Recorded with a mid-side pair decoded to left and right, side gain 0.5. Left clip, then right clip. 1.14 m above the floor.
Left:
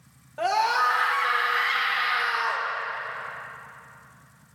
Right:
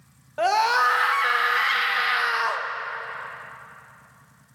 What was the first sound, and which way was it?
A scream, 35° right.